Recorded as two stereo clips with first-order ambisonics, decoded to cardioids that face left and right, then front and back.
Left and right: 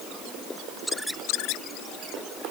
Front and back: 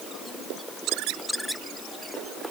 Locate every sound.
Only background noise.